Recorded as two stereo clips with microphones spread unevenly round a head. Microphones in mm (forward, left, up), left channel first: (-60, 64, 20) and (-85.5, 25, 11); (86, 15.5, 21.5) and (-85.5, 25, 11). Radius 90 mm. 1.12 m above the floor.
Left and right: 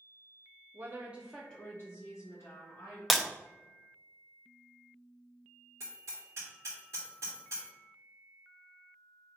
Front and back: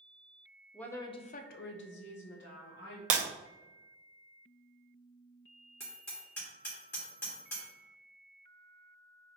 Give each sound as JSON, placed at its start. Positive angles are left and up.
{"t": 0.7, "sound": "a woman speaking", "azimuth_deg": -90, "distance_m": 0.6}
{"t": 3.1, "sound": "breaking glass", "azimuth_deg": 135, "distance_m": 0.6}
{"t": 5.8, "sound": "hammering", "azimuth_deg": -80, "distance_m": 2.0}